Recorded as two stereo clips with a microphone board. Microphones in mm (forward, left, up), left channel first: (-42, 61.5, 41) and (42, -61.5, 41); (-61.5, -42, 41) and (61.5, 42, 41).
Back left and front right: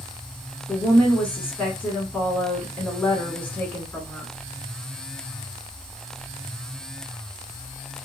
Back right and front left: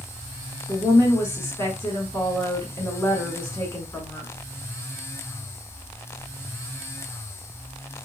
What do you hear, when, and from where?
0.7 s a woman speaking: 170° right, 1.1 m